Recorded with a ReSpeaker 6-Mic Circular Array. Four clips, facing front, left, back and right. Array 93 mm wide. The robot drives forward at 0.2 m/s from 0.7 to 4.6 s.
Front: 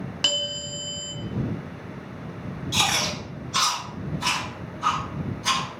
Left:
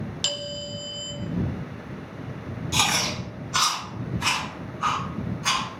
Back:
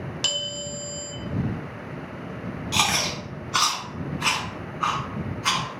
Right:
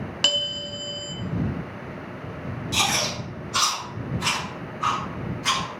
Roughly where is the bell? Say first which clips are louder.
Right 3 dB, front 1 dB; ahead right.